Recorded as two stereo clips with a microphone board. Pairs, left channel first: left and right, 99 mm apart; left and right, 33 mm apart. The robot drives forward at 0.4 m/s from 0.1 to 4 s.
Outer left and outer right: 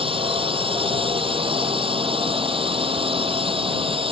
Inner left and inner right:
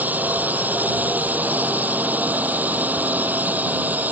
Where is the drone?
65° right (ahead or behind).